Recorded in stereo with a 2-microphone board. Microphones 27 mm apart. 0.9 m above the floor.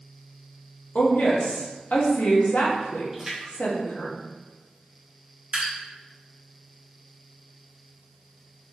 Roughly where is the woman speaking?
Left.